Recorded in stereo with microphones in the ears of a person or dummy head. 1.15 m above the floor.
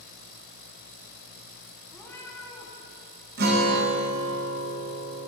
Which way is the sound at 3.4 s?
55° right (ahead or behind).